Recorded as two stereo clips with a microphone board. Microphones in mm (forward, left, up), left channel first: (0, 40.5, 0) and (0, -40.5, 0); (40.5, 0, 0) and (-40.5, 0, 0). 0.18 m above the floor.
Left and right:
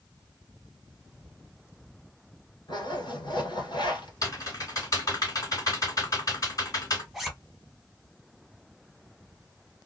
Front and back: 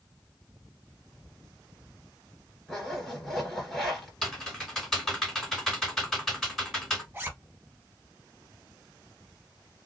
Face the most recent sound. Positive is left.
turn(degrees=-175)